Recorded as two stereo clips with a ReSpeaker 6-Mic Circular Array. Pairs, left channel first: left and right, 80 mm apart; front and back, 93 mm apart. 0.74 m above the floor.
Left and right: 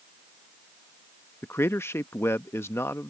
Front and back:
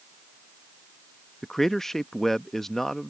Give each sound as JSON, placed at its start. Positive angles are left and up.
{"t": 1.4, "sound": "a man speaking", "azimuth_deg": 80}